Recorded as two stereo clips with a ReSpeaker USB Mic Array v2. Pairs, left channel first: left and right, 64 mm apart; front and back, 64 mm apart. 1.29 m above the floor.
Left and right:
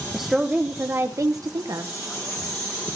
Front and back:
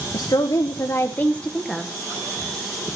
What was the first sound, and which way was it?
A woman speaking, straight ahead.